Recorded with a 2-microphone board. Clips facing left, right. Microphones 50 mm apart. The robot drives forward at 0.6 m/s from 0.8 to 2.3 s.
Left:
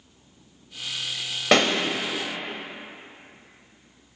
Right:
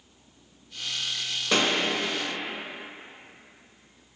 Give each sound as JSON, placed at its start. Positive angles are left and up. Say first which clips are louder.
{"t": 1.5, "sound": "a pop", "louder": "left 5 dB", "side_deg": 75, "distance_m": 0.8}